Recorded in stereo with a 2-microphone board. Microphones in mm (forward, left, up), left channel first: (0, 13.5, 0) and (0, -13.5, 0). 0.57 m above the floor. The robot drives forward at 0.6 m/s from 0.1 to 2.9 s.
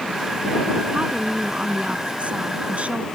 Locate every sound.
0.9 s a woman speaking: 45° right (ahead or behind); by 3.1 s 50° right (ahead or behind)